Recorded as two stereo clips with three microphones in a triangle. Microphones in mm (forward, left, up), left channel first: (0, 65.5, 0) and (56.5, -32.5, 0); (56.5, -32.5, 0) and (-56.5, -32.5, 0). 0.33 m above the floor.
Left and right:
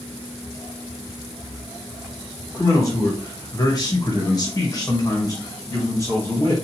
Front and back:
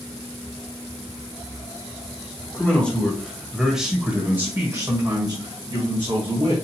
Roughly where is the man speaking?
Left.